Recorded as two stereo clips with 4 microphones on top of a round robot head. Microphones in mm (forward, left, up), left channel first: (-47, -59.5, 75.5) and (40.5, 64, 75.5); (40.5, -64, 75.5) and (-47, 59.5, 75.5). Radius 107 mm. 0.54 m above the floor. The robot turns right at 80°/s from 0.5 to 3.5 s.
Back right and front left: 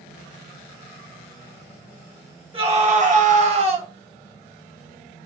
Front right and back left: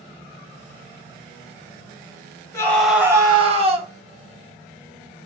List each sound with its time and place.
2.5 s a scream: 10° left, 1.2 m; by 3.9 s 90° left, 1.2 m